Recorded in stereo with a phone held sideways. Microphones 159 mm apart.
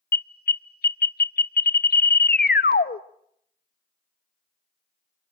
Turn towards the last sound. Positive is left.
turn(degrees=80)